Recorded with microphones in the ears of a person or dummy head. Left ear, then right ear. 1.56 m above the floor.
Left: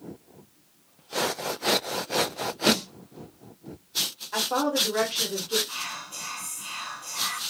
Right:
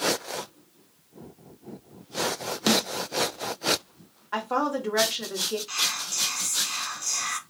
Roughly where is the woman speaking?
Right.